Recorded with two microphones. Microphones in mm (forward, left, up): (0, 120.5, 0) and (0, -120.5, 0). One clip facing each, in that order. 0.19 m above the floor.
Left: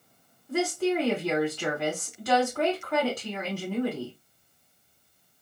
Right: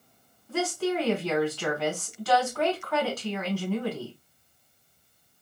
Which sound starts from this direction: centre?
A woman speaking, at 0.5 s.